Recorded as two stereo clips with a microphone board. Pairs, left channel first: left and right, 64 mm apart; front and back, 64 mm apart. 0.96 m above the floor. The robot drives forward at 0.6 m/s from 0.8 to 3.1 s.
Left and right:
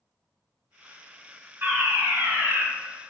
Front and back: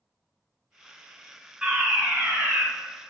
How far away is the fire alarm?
About 1.8 m.